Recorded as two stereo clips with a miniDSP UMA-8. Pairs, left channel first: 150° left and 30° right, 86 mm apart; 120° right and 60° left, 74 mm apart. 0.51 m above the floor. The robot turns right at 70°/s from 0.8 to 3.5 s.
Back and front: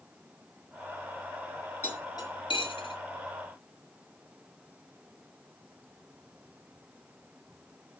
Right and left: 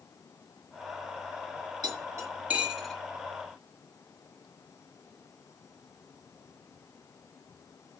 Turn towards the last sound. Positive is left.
turn(degrees=-160)